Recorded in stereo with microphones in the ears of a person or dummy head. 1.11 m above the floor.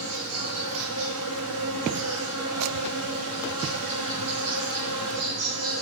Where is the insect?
85° right, 5 m.